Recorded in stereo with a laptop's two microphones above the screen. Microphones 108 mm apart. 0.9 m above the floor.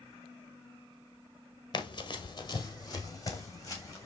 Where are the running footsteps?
45° left (ahead or behind), 1.1 m; by 4.1 s 30° left (ahead or behind), 3.5 m.